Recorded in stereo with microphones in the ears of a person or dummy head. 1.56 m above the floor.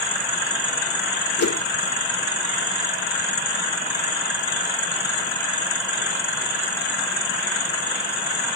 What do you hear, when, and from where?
1.4 s a whoosh: 50° left (ahead or behind), 0.7 m